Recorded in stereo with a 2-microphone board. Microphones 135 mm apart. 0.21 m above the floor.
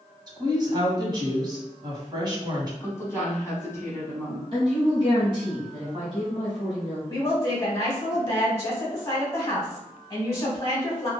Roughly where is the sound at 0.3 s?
Right.